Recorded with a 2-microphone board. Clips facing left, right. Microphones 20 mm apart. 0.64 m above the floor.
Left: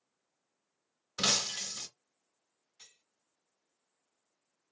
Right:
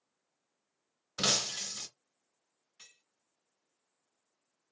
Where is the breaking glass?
5° right (ahead or behind), 0.5 m.